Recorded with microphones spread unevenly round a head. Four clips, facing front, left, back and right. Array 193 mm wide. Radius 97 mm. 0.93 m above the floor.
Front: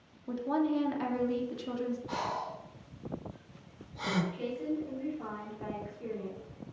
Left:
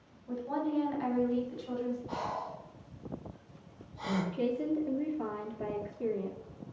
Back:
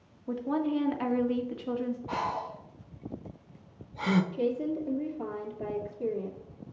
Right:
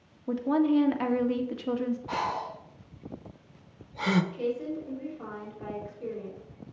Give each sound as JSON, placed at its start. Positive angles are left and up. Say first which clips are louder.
{"t": 0.3, "sound": "a woman speaking", "louder": "right 9 dB, back 1 dB", "azimuth_deg": -85, "distance_m": 1.7}
{"t": 2.1, "sound": "breathing", "louder": "right 5 dB, back 3 dB", "azimuth_deg": -95, "distance_m": 1.0}
{"t": 4.3, "sound": "a woman speaking", "louder": "even, back 5 dB", "azimuth_deg": 135, "distance_m": 2.0}